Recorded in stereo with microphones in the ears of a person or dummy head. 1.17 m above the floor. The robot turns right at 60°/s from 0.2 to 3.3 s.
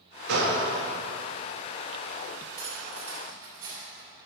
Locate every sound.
0.3 s a gunshot: 70° right (ahead or behind), 1.4 m; by 0.7 s 50° right (ahead or behind), 1.4 m
2.6 s cutlery clinking: 20° left (ahead or behind), 1.9 m; by 4.1 s 25° right (ahead or behind), 1.9 m